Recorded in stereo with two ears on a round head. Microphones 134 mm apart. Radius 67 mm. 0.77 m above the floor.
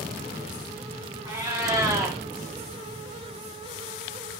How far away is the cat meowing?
About 0.7 m.